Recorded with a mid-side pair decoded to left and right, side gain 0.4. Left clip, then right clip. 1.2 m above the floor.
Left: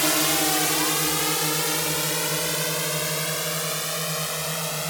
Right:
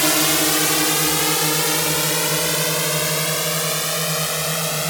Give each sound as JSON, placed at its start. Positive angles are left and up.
{"t": 0.0, "sound": "a drone", "azimuth_deg": -30}